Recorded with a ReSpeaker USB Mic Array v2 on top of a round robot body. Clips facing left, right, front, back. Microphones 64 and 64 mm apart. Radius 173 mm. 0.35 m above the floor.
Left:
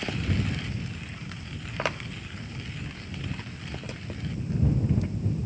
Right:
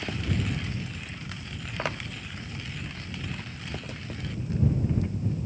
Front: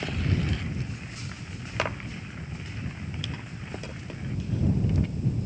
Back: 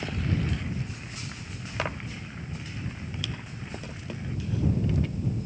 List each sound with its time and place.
Only background noise.